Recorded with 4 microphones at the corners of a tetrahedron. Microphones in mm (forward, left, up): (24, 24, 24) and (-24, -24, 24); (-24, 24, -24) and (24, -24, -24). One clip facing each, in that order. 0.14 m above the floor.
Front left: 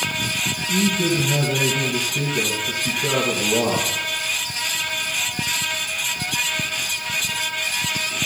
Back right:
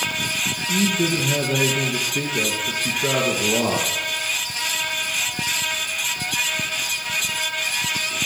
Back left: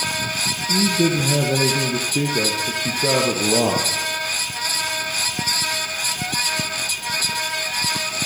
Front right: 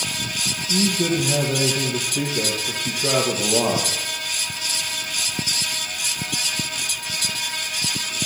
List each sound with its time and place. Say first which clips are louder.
0.7 s a man speaking: front left 1 dB, back left 2 dB; 155° left, 3 m